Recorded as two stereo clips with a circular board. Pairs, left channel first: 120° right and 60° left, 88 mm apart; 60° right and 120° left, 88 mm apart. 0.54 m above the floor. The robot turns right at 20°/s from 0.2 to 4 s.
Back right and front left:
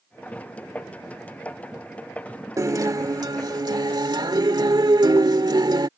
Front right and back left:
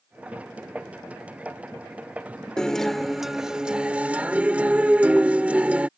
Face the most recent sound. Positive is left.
turn(degrees=50)